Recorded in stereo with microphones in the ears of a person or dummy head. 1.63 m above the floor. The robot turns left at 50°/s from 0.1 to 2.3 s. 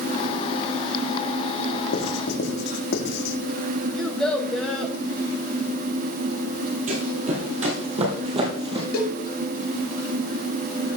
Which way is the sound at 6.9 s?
45° right (ahead or behind).